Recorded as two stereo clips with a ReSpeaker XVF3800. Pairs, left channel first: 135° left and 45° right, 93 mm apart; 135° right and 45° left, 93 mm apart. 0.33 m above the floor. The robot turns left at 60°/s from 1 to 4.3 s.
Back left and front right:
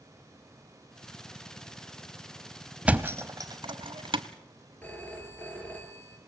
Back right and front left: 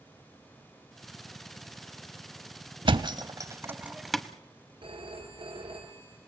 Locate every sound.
2.9 s a thud: 30° left, 1.0 m; by 4.2 s 55° right, 1.0 m
4.8 s a phone ringing: 60° left, 4.5 m